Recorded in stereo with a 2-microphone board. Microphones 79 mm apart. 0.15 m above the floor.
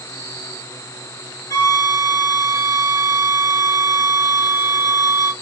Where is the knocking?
I don't hear knocking.